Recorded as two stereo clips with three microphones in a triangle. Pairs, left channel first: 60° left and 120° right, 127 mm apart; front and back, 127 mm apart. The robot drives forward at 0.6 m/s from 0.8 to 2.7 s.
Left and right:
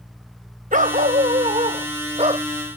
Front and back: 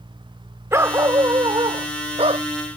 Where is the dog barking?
110° right; by 2.5 s 150° right.